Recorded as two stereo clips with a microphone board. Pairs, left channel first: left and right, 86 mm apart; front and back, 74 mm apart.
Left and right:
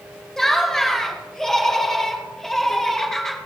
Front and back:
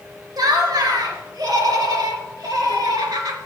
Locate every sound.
0.4 s laughter: 175° left, 2 m